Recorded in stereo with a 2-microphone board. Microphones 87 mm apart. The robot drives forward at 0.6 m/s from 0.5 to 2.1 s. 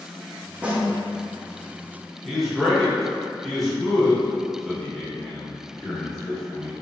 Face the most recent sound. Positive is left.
turn(degrees=0)  # may be behind; listen again after turning